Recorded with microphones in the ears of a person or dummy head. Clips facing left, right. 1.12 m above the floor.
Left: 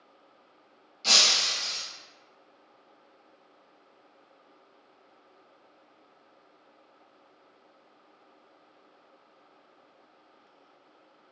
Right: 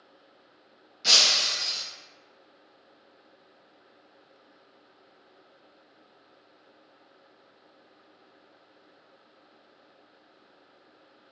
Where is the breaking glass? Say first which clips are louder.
Even; 15° right (ahead or behind), 0.6 m.